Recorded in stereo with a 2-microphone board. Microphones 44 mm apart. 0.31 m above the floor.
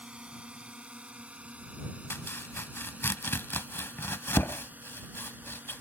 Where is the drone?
25° right (ahead or behind); by 5.8 s 40° right (ahead or behind).